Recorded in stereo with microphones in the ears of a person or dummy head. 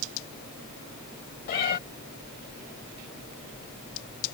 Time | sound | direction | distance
1.5 | a cat meowing | 50° left (ahead or behind) | ?